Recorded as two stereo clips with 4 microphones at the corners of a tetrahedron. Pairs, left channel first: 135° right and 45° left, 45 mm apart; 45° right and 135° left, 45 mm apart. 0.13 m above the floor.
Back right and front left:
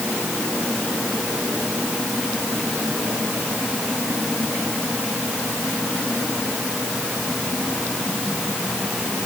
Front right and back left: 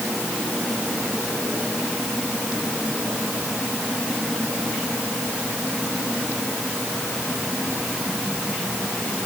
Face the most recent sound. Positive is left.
No sound to turn to.